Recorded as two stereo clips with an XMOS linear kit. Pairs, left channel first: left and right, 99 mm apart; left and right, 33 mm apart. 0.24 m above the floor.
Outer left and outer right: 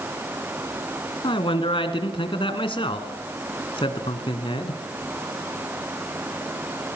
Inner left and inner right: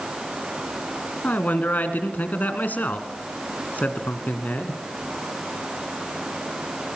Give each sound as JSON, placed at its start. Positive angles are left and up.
{"t": 1.2, "sound": "a man speaking", "side_deg": 65, "distance_m": 2.0}